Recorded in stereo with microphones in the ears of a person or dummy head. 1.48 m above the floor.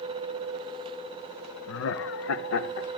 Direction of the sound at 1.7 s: 70° left (ahead or behind).